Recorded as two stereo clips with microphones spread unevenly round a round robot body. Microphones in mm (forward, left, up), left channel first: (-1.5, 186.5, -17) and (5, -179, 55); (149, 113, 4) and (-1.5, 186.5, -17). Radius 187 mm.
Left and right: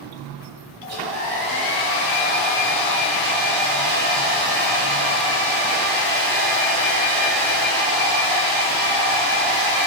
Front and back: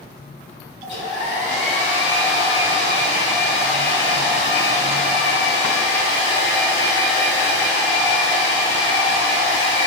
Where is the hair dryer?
20° right, 1.1 m.